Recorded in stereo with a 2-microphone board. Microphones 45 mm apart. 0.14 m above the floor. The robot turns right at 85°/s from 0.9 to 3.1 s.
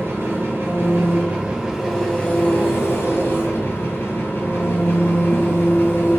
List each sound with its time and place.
0.0 s an engine running: 85° right, 1.6 m; by 6.2 s 105° left, 1.6 m